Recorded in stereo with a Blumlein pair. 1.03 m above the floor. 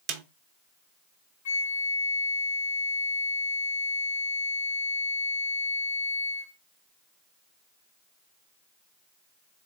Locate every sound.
0.1 s a snare drum: 35° right, 0.9 m
1.4 s a flute: 55° left, 0.7 m